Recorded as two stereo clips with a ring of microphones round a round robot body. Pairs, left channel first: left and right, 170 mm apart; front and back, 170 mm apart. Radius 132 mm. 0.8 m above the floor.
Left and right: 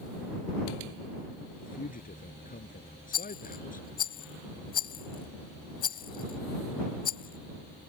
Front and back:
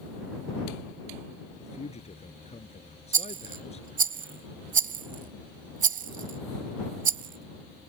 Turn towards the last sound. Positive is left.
turn(degrees=145)